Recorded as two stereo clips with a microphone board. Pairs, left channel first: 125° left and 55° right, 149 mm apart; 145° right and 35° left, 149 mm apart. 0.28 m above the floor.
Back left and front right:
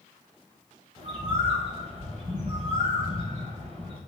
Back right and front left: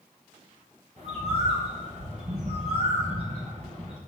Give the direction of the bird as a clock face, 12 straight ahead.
12 o'clock.